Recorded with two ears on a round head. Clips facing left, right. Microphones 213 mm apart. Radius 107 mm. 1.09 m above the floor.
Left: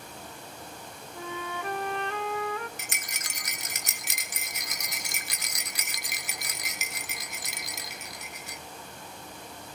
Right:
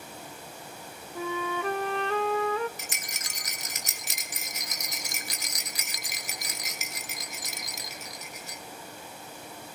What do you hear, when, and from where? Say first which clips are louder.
1.1 s a flute: right 6 dB; 60° right (ahead or behind), 0.5 m
2.8 s a rattle: right 1 dB; 50° left (ahead or behind), 1.4 m